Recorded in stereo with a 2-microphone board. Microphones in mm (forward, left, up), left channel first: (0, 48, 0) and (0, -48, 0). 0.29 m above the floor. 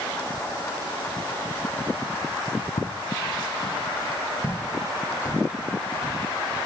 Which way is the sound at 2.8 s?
65° left (ahead or behind).